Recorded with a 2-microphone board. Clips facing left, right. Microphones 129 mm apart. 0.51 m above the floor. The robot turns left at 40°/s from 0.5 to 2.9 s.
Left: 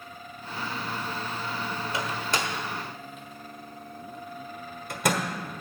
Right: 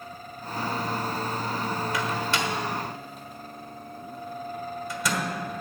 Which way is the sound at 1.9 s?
30° left (ahead or behind).